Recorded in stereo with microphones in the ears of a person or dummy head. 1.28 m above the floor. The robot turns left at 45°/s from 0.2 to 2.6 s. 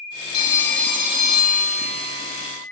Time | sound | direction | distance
0.3 | a phone ringing | 25° left | 0.7 m